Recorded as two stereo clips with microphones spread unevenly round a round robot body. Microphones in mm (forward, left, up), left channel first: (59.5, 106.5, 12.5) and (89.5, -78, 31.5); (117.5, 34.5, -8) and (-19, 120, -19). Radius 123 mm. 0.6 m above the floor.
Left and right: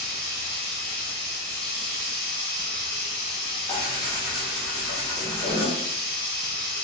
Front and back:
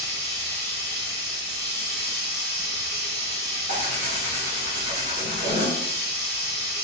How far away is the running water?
About 1.4 m.